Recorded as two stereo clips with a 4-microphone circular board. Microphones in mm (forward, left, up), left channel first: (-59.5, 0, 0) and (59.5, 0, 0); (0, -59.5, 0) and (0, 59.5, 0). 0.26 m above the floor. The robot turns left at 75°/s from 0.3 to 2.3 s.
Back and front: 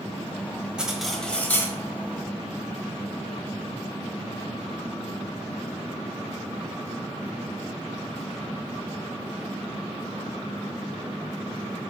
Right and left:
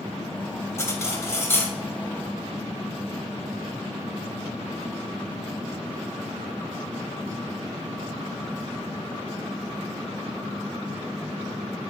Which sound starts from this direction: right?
Cutlery clinking, at 0.8 s.